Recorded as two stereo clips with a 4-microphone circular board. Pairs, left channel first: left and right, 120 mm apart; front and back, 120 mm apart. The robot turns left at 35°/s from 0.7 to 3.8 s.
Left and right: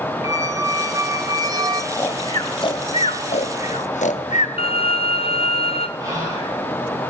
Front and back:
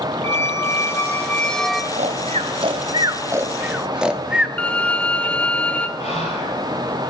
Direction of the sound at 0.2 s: 50° right.